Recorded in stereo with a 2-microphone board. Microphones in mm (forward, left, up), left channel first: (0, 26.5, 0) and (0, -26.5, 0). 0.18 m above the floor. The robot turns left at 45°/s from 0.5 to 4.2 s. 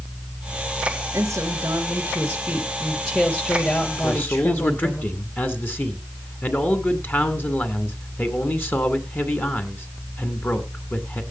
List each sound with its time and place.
1.1 s a woman speaking: 100° right, 3 m; by 5.0 s 120° left, 3 m
4.0 s a man speaking: 35° left (ahead or behind), 2 m; by 11.2 s 40° left (ahead or behind), 2 m